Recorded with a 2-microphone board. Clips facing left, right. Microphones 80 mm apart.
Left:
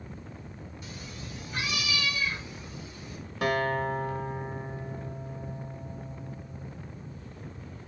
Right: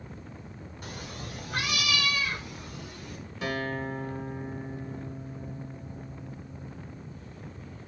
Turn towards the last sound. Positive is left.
turn(degrees=60)  # may be behind; listen again after turning